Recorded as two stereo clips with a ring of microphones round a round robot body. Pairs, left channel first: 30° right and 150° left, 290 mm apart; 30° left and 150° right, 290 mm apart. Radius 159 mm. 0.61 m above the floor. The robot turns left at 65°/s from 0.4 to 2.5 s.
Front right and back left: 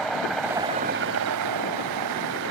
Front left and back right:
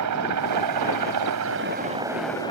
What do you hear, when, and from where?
0.0 s a helicopter: 120° right; by 2.5 s 105° left